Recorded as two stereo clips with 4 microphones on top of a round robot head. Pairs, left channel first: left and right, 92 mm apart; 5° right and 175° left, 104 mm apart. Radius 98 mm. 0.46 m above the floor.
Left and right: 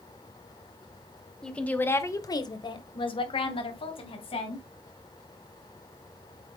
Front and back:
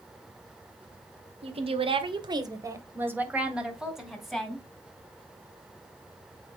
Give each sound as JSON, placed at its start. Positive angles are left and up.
{"t": 1.4, "sound": "a woman speaking", "azimuth_deg": 170, "distance_m": 1.9}